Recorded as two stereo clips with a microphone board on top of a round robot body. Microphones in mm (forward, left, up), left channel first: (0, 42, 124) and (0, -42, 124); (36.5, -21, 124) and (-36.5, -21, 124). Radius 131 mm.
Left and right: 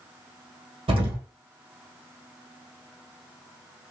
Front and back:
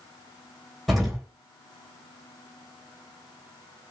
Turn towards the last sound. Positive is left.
turn(degrees=-85)